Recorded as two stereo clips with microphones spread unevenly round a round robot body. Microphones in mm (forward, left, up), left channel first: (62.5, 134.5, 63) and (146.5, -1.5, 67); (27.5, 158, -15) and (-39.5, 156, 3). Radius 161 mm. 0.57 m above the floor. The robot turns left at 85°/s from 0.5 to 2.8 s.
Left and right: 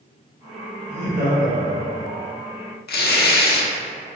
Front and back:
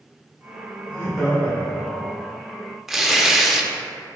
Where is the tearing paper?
95° left, 0.6 m.